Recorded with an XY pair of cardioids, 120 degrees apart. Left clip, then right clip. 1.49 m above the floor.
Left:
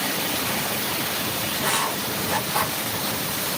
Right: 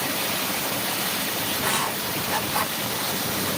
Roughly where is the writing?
Ahead.